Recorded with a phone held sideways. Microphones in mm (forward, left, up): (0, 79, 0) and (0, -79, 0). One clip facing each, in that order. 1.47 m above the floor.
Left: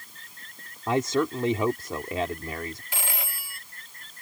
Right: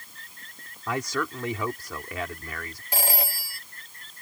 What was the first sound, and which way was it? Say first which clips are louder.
A man speaking: left 5 dB; 25° left (ahead or behind).